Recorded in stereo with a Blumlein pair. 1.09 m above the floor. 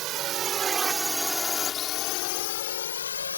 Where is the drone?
35° right; by 3.4 s 70° left.